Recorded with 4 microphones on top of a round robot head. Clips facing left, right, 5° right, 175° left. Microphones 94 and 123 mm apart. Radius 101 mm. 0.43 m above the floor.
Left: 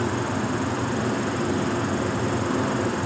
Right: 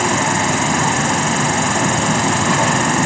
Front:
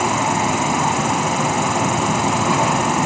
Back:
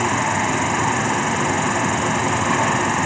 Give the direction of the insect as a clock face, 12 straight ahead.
2 o'clock.